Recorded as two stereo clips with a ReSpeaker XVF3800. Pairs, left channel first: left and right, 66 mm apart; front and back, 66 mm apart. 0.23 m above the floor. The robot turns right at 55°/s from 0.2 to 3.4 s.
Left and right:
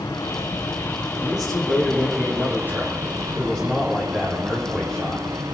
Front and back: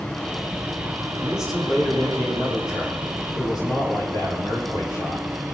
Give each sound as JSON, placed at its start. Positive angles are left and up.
{"t": 0.0, "sound": "running water", "azimuth_deg": 80, "distance_m": 4.5}
{"t": 1.2, "sound": "a man speaking", "azimuth_deg": -110, "distance_m": 8.0}